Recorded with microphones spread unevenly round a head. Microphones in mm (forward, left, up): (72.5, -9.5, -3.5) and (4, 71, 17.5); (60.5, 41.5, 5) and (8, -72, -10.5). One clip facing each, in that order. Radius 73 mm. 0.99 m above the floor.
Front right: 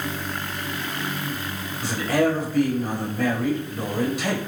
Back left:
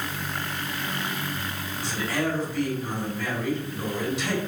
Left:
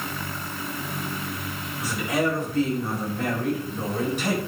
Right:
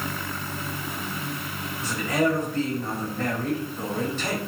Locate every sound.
1.8 s a man speaking: 10° right, 5 m